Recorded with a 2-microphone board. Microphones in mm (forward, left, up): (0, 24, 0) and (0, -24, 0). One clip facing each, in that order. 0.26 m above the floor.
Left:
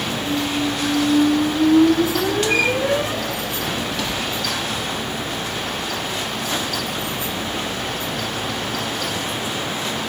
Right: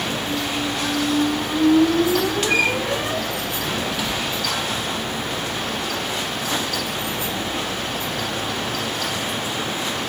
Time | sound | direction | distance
0.2 | a squeak | 5° right (ahead or behind) | 1.1 m